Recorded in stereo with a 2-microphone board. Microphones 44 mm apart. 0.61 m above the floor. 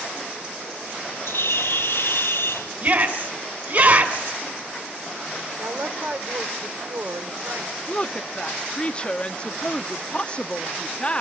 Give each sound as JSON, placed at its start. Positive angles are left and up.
{"t": 1.3, "sound": "a bird", "side_deg": 75, "distance_m": 1.9}
{"t": 2.8, "sound": "a shout", "side_deg": -50, "distance_m": 4.5}
{"t": 5.6, "sound": "a woman speaking", "side_deg": -65, "distance_m": 2.5}
{"t": 7.9, "sound": "a woman speaking", "side_deg": 25, "distance_m": 0.6}